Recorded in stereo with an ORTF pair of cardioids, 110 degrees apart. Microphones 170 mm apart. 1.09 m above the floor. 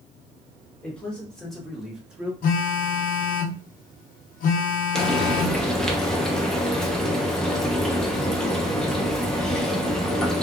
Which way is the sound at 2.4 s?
60° left.